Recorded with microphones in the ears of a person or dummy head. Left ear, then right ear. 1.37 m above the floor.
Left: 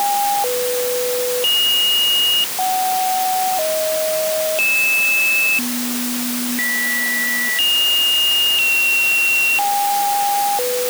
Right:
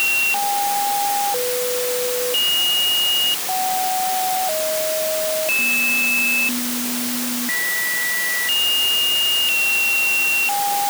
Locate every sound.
Only background noise.